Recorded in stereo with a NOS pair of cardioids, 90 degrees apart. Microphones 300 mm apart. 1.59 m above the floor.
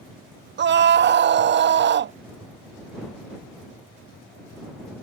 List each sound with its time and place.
0.6 s a scream: 40° right